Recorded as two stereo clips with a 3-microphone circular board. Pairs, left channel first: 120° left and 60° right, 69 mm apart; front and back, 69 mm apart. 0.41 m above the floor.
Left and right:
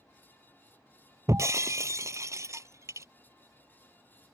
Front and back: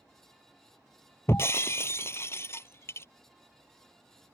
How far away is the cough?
No cough in this recording.